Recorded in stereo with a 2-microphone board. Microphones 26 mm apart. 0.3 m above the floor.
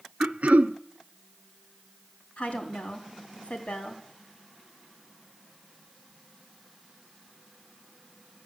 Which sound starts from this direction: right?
Throat clearing, at 0.2 s.